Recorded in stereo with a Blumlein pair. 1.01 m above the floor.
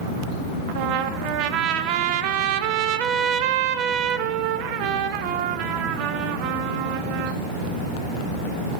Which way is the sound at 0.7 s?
40° right.